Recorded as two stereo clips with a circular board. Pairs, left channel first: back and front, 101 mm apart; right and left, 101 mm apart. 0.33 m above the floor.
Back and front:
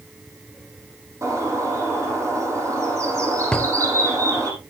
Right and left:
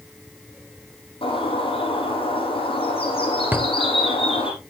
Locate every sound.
1.2 s a bird: 60° right, 4.5 m
3.5 s a drawer: 115° left, 0.6 m